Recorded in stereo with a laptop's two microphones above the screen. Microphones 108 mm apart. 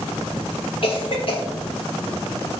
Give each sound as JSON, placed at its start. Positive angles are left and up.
{"t": 0.8, "sound": "a cough", "side_deg": 55, "distance_m": 0.6}